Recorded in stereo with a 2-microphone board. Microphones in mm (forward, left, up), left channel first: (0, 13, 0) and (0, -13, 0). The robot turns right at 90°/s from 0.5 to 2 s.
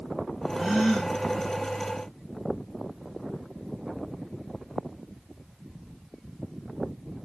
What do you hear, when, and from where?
0.6 s a gasp: 25° right, 1.2 m; by 1.1 s 25° left, 1.2 m